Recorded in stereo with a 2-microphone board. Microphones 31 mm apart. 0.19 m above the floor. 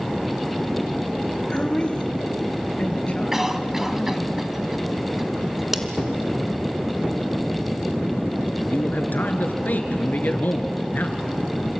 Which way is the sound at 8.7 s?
65° left (ahead or behind).